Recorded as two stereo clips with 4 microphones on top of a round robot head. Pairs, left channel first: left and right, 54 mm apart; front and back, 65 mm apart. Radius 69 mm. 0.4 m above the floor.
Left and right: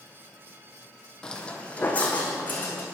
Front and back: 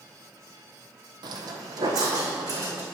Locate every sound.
1.2 s footsteps: 170° left, 0.9 m; by 2.9 s 150° left, 2.5 m